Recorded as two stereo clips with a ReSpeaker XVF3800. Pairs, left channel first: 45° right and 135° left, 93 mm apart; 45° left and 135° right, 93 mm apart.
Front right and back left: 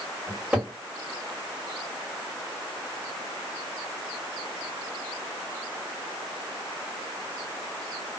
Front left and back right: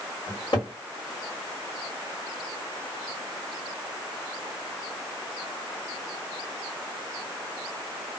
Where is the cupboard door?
60° left, 1.7 m.